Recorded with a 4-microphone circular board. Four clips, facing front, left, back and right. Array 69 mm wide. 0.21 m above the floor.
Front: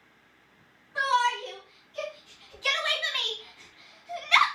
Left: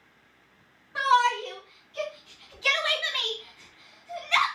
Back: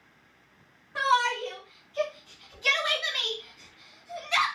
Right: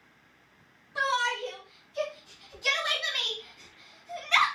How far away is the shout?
About 2 m.